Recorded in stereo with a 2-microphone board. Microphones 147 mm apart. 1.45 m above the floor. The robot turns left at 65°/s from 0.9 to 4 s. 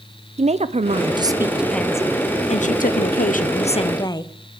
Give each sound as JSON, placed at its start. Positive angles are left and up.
{"t": 0.4, "sound": "a woman speaking", "azimuth_deg": -130, "distance_m": 0.7}